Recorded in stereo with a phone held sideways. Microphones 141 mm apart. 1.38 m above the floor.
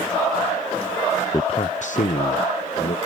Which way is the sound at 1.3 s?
25° left (ahead or behind).